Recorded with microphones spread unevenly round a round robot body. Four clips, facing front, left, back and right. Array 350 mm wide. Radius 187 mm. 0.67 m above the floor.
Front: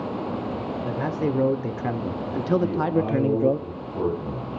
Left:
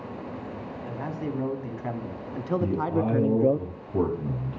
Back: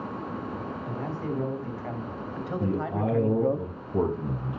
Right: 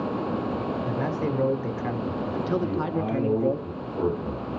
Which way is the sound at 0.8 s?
20° right.